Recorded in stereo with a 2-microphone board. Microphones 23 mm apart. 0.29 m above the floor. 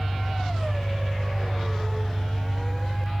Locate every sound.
0.0 s an engine running: 5° left (ahead or behind), 1.7 m